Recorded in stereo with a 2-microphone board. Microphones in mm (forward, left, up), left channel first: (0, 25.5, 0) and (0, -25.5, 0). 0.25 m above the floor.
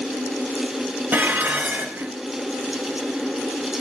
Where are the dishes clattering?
35° right (ahead or behind), 1.9 m.